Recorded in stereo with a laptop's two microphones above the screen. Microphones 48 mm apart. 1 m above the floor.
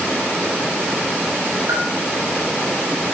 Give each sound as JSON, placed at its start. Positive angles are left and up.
{"t": 1.7, "sound": "a bell", "side_deg": -65, "distance_m": 7.5}